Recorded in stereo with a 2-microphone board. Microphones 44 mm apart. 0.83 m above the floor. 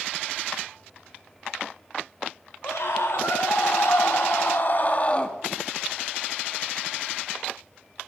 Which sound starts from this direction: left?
A scream, at 2.6 s.